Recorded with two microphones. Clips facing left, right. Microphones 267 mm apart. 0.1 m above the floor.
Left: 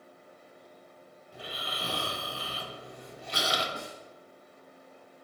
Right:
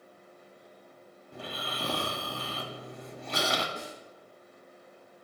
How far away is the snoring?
About 1.7 m.